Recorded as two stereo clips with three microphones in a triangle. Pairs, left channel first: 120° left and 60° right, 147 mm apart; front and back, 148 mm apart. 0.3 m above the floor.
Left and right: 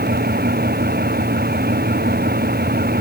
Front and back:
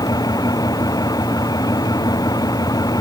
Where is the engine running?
65° right.